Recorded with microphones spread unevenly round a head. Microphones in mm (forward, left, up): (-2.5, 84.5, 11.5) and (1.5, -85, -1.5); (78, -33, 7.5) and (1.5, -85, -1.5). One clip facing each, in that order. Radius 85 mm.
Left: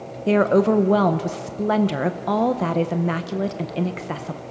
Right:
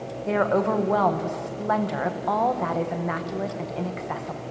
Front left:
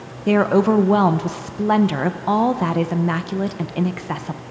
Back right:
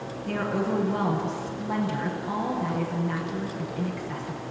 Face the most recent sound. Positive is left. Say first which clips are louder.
# left 6 dB, front left 12 dB
turn(degrees=45)